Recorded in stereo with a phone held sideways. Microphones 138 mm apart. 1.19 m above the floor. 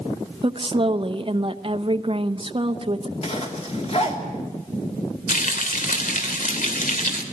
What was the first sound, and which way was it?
A woman speaking, 40° right (ahead or behind).